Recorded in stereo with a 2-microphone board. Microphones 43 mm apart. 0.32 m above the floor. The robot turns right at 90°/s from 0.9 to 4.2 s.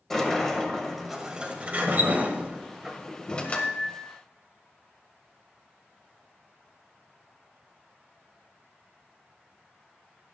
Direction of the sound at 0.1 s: 170° left.